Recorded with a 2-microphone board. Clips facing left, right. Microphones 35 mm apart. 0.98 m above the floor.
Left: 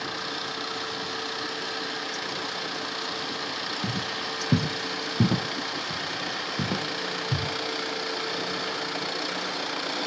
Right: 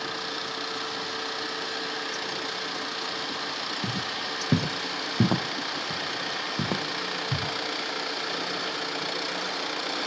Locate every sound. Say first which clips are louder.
3.8 s footsteps: even; 25° right (ahead or behind), 2 m